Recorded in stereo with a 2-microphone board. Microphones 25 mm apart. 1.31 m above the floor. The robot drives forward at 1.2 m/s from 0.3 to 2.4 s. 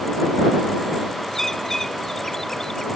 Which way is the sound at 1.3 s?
15° left (ahead or behind).